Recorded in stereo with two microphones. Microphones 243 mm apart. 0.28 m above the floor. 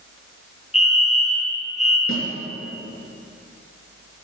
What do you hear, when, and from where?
0.7 s a fire alarm: 30° left (ahead or behind), 5.5 m
2.1 s a snare drum: 60° left (ahead or behind), 5 m